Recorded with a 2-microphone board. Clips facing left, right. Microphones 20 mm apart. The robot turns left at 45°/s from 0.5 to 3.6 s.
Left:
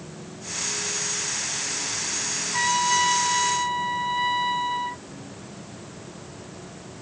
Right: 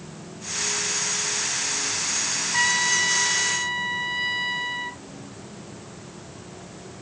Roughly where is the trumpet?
Right.